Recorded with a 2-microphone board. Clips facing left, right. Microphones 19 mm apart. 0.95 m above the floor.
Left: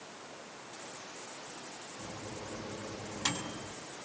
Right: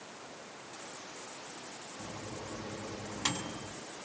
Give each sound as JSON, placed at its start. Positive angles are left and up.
{"t": 2.0, "sound": "a microwave", "side_deg": -20, "distance_m": 6.5}